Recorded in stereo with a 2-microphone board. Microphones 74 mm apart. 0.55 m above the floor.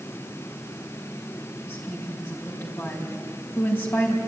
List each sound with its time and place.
1.6 s a woman speaking: 25° left (ahead or behind), 5 m